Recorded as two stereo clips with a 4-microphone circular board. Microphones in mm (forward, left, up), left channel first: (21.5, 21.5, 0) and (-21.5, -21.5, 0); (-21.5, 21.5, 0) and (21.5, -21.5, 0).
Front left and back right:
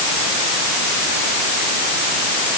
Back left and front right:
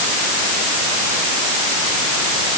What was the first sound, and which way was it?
Only background noise.